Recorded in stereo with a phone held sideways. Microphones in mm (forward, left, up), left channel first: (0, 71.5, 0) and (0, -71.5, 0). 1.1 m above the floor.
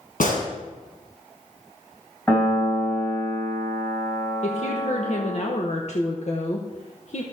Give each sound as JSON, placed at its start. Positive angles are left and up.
{"t": 0.2, "sound": "a gunshot", "side_deg": 75, "distance_m": 4.0}
{"t": 2.3, "sound": "a piano", "side_deg": 10, "distance_m": 3.0}
{"t": 4.4, "sound": "a woman speaking", "side_deg": 50, "distance_m": 1.0}